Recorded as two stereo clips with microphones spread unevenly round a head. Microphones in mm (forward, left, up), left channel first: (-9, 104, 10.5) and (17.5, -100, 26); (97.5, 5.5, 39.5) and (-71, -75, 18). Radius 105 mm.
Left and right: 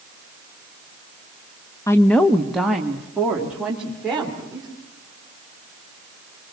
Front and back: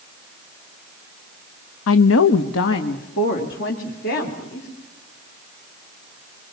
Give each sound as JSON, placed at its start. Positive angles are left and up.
{"t": 1.9, "sound": "a woman speaking", "azimuth_deg": 20, "distance_m": 0.5}